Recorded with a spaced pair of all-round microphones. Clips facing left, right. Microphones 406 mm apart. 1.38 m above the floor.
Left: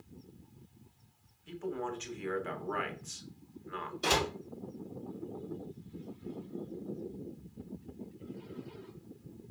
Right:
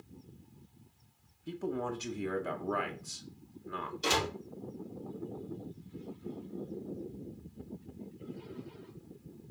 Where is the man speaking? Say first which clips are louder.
Right 2 dB; 55° right (ahead or behind), 1.4 m.